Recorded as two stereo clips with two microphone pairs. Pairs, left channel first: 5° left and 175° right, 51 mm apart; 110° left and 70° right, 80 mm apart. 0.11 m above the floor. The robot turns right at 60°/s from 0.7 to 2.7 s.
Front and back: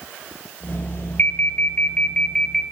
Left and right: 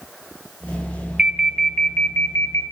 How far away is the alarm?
About 1.4 m.